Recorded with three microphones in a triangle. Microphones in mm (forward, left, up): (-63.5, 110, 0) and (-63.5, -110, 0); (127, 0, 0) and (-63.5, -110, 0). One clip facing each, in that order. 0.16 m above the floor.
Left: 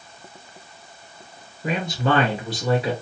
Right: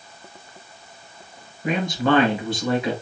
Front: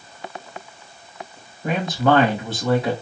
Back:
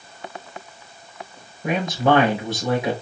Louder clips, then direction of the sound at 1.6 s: Right 2 dB, even; 135° left.